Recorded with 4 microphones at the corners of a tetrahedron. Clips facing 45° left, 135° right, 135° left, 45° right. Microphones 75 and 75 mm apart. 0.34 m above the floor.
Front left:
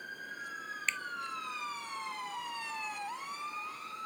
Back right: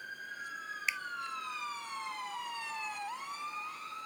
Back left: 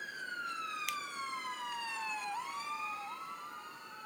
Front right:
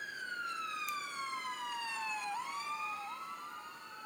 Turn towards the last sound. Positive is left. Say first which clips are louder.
# even, back left 1 dB
turn(degrees=145)